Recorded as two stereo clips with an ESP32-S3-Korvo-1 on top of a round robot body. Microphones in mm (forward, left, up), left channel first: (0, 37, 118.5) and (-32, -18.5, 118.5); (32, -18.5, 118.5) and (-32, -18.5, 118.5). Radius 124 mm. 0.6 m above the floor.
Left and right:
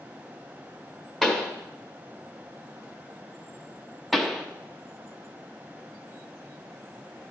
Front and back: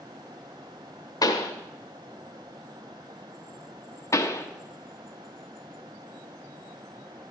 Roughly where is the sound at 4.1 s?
Ahead right.